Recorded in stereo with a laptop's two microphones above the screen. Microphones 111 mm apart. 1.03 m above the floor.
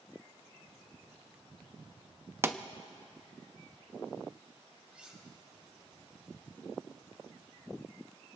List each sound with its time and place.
2.4 s a pop: 20° right (ahead or behind), 0.7 m
4.9 s cutlery clinking: 10° right (ahead or behind), 4.5 m